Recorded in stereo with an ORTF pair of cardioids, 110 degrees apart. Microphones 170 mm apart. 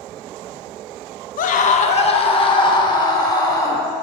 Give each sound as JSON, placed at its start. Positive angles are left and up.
{"t": 1.4, "sound": "a scream", "azimuth_deg": 55, "distance_m": 0.7}